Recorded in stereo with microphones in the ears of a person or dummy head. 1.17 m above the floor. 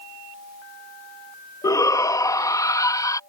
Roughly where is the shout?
Centre.